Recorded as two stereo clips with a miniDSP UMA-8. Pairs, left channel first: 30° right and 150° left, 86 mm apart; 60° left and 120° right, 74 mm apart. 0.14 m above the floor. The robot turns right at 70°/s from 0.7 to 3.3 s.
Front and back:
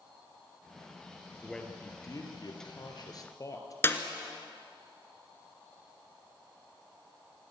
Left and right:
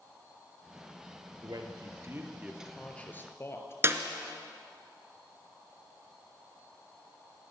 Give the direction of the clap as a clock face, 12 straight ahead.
3 o'clock.